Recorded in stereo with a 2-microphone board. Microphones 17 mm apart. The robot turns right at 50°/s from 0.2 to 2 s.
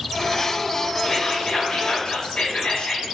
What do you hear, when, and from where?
1.0 s whispering: 5° left, 2 m; by 3.1 s 55° left, 2 m